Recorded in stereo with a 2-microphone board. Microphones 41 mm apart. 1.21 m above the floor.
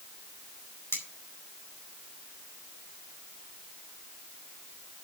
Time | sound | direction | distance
0.9 | cutlery clinking | 85° left | 4 m